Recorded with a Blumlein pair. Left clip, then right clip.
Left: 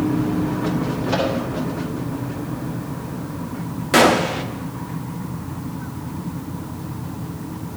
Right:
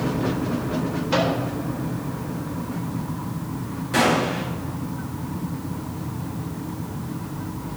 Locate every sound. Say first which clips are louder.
1.1 s a microwave: even; 10° right, 3.5 m
3.9 s a gunshot: left 5 dB; 60° left, 1.0 m